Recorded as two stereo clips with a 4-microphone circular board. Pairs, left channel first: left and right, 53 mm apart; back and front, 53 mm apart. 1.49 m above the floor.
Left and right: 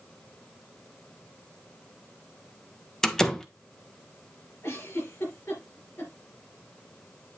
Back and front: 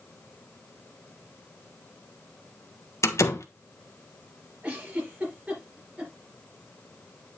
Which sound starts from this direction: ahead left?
A giggle, at 4.6 s.